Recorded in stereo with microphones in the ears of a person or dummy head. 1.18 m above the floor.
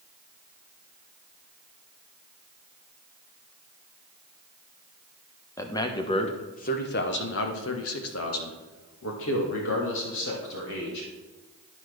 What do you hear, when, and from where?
5.6 s a man speaking: 15° left (ahead or behind), 1.2 m; by 11.1 s 60° left (ahead or behind), 2.5 m